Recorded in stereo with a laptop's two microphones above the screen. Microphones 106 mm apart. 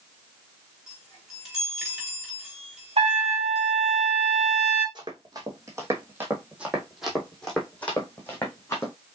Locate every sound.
0.9 s a chime: centre (ahead or behind), 3 m
3.0 s a trumpet: 70° right (ahead or behind), 1.6 m
5.0 s running footsteps: 40° right (ahead or behind), 1.9 m; by 8.9 s 25° left (ahead or behind), 2.5 m